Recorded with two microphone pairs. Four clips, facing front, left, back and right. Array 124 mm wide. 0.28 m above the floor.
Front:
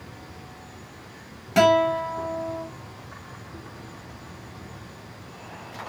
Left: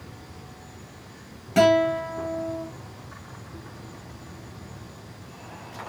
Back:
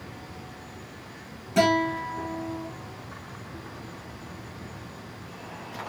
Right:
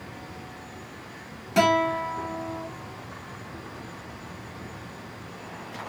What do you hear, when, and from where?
1.6 s a guitar: 5° right, 1.1 m